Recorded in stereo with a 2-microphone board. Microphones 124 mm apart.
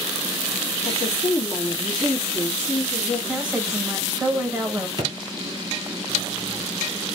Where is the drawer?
35° right (ahead or behind), 1.6 m.